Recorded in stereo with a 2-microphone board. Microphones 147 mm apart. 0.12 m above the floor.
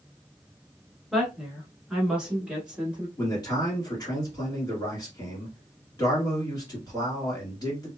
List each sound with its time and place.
1.1 s a woman speaking: centre (ahead or behind), 1.2 m; by 3.1 s 10° right (ahead or behind), 1.4 m
3.2 s a man speaking: 25° left (ahead or behind), 1.9 m